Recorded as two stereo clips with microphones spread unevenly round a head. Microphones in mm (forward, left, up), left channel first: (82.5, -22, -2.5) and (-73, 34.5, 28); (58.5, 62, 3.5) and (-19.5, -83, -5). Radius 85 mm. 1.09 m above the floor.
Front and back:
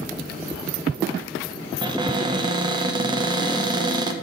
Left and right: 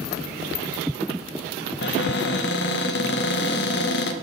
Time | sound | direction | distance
1.8 | a cupboard door | 95° left | 0.8 m